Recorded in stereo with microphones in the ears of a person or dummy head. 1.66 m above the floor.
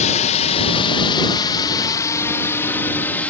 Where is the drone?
40° left (ahead or behind); by 3.3 s 10° left (ahead or behind).